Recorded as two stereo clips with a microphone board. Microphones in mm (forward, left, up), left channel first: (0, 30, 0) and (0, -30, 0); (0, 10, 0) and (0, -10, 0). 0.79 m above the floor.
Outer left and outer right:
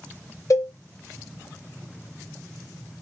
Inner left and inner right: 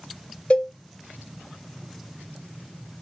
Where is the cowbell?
65° left (ahead or behind), 0.6 m.